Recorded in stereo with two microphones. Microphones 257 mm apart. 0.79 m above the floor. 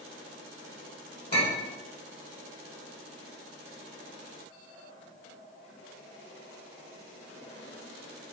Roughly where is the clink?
Left.